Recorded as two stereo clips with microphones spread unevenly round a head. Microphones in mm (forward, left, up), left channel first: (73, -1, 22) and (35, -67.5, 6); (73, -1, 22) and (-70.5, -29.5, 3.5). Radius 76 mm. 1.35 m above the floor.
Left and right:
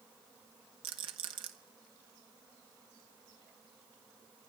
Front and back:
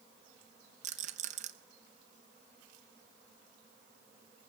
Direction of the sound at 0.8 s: 125° right.